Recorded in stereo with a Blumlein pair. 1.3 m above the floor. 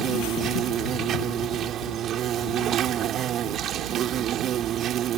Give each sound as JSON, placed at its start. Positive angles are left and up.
{"t": 0.0, "sound": "an insect", "azimuth_deg": -30}